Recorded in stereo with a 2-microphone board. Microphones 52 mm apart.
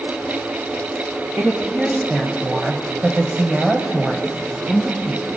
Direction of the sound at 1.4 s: 20° right (ahead or behind).